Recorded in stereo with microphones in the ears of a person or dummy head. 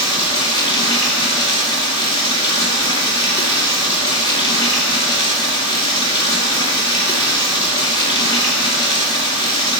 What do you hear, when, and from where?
0.0 s running water: 25° left (ahead or behind), 1.8 m